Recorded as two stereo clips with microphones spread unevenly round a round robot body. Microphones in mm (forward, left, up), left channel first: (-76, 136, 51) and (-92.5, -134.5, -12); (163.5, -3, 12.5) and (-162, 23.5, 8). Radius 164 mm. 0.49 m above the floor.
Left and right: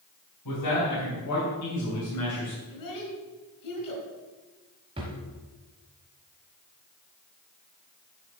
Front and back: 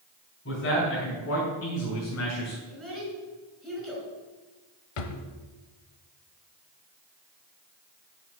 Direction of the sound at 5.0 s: 20° right.